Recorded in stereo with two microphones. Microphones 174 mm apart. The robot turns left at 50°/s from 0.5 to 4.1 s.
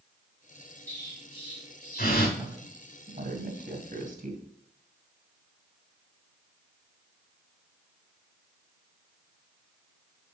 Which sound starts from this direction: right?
A woman speaking, at 2.4 s.